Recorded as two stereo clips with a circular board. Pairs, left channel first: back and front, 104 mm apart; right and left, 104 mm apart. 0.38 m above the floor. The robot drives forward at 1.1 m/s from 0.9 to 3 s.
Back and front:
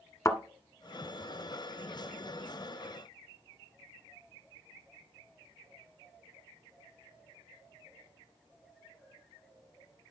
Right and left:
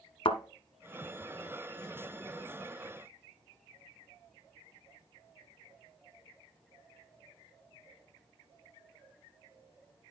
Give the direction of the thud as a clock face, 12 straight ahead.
4 o'clock.